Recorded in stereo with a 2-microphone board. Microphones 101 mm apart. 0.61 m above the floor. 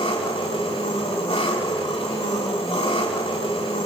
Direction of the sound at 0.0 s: 80° left.